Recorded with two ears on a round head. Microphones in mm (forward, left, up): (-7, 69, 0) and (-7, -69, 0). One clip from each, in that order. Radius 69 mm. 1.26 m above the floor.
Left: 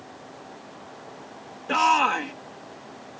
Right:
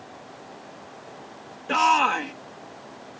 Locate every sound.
1.7 s a shout: 5° right (ahead or behind)